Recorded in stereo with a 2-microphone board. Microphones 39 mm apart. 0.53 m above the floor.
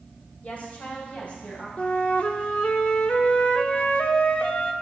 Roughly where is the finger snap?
I don't hear a finger snap.